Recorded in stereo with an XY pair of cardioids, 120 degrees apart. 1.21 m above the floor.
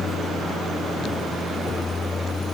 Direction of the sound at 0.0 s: 40° left.